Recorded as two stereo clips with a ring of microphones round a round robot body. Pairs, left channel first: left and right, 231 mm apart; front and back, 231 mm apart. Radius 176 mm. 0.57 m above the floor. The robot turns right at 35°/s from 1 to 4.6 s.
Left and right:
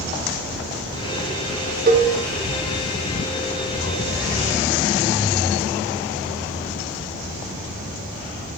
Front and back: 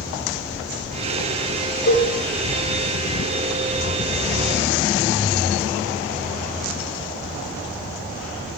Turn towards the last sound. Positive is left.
turn(degrees=45)